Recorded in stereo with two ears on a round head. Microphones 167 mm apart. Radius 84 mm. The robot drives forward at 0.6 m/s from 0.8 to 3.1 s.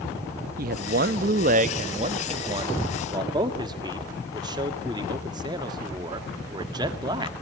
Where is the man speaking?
50° right (ahead or behind), 0.8 m; by 7.3 s 20° right (ahead or behind), 1.5 m.